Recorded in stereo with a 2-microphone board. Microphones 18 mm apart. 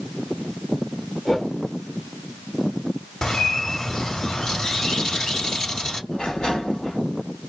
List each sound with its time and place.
1.2 s a whoosh: 50° left (ahead or behind), 1.6 m
3.2 s a bird: 55° left (ahead or behind), 0.9 m
6.1 s a sliding door: 75° left (ahead or behind), 1.8 m